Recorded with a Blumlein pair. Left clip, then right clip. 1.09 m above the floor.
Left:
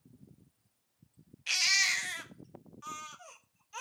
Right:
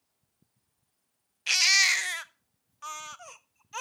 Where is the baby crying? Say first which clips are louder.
Right 6 dB; 70° right, 0.5 m.